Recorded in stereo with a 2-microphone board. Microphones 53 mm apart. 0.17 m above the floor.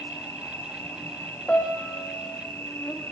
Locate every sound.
0.0 s an insect: 45° left (ahead or behind), 3 m
1.5 s a piano: 25° left (ahead or behind), 4.5 m